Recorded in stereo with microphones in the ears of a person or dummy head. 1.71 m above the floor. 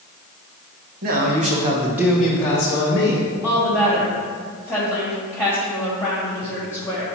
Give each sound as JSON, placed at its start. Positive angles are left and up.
{"t": 1.0, "sound": "a man speaking", "side_deg": -55, "distance_m": 1.5}
{"t": 3.4, "sound": "a woman speaking", "side_deg": -5, "distance_m": 3.0}